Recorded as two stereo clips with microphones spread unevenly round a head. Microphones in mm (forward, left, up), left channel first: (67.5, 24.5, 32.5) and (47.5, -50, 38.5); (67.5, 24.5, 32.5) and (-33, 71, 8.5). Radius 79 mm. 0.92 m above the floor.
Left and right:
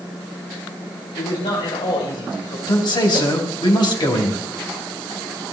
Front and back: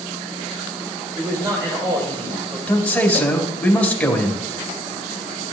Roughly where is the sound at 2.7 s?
Ahead left.